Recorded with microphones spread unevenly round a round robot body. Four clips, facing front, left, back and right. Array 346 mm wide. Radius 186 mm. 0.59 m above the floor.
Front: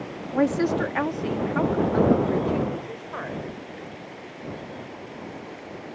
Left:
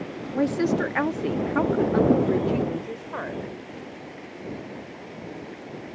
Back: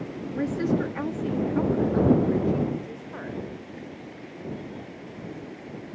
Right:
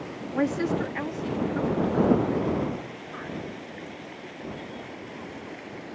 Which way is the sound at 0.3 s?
5° right.